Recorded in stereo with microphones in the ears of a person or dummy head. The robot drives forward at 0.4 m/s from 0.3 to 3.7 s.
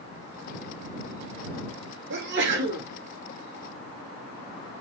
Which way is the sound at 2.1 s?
60° right (ahead or behind).